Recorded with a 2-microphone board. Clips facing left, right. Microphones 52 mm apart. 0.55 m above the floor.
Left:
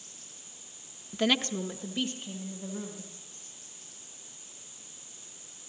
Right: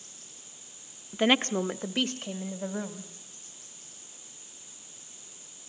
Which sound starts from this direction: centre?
A woman speaking, at 1.1 s.